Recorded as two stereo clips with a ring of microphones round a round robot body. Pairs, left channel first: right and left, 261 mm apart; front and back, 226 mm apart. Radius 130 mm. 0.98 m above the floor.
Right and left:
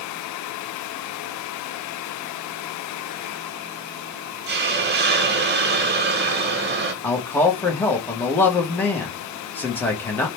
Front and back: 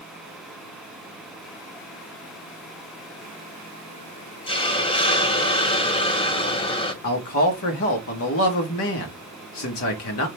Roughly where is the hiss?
Ahead left.